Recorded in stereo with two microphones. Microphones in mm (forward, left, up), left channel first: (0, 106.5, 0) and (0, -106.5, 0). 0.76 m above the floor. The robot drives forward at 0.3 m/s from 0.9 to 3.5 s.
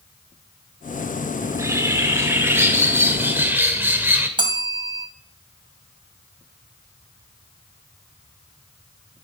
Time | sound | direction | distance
1.4 | a bird | 15° right (ahead or behind) | 1.4 m
4.4 | a bell | 20° right (ahead or behind) | 2.5 m